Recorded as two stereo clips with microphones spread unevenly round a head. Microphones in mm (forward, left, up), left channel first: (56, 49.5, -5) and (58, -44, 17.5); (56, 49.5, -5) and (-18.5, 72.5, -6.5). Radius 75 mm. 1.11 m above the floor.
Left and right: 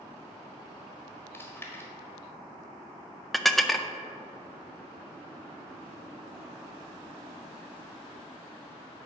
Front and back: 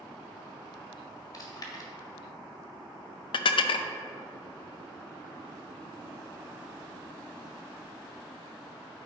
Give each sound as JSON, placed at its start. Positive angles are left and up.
{"t": 1.3, "sound": "chewing", "azimuth_deg": 25, "distance_m": 1.6}
{"t": 3.3, "sound": "dishes clattering", "azimuth_deg": 0, "distance_m": 0.5}